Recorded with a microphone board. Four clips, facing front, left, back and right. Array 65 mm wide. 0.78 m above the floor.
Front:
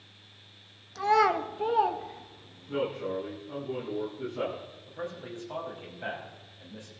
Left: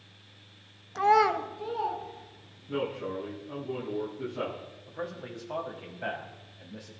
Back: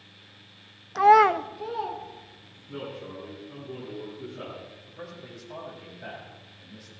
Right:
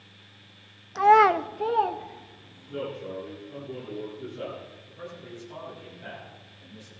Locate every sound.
0.9 s a child speaking: 170° right, 0.7 m; by 2.8 s 50° right, 2.5 m
2.7 s a man speaking: 60° left, 7.5 m
4.9 s a man speaking: 70° left, 6 m